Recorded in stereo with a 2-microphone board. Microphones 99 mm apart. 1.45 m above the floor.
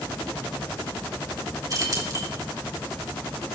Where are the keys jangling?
35° right (ahead or behind), 3 m.